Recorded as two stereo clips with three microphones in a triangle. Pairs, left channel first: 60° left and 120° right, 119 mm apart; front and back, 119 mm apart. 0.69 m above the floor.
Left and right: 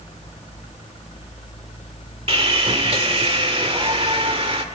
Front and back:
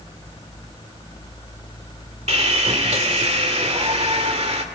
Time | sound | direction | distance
2.3 | sawing | 155° right | 2 m